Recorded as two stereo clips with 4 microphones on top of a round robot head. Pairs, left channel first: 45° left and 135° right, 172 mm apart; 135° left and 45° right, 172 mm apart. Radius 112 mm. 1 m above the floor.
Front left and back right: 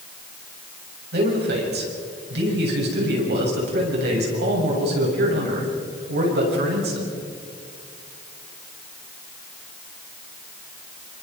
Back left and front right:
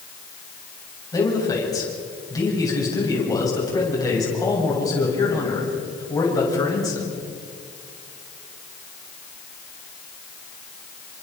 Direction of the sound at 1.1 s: 155° right.